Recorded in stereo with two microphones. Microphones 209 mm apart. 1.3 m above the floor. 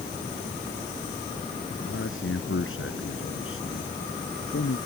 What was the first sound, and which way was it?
A man speaking, 75° left (ahead or behind).